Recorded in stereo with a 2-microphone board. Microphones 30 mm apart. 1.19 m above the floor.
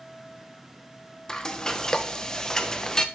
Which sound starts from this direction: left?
Frying, at 1.3 s.